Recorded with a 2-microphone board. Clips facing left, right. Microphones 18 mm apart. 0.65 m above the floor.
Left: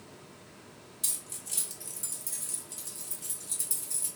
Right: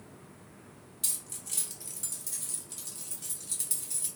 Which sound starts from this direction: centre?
Keys jangling, at 1.0 s.